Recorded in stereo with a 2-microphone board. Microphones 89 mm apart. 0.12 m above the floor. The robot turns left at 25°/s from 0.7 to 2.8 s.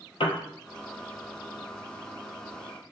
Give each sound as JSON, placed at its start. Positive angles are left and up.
{"t": 0.2, "sound": "a piano", "side_deg": 75, "distance_m": 0.5}